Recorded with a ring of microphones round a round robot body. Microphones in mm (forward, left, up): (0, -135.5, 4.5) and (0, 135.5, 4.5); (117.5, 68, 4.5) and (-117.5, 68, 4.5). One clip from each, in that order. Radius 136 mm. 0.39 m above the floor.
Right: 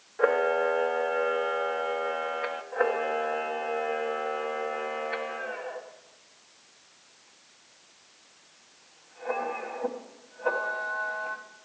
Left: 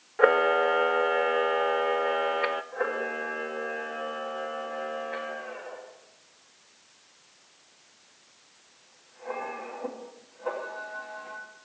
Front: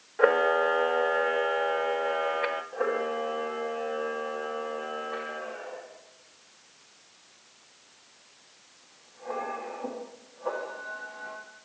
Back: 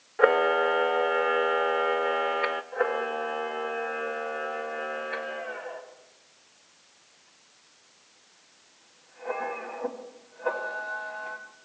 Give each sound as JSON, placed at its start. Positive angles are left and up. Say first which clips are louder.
{"t": 0.2, "sound": "a camera shutter", "louder": "left 3 dB, back 1 dB", "azimuth_deg": 125, "distance_m": 0.8}
{"t": 2.7, "sound": "a camera shutter", "louder": "right 3 dB, back 1 dB", "azimuth_deg": -155, "distance_m": 3.0}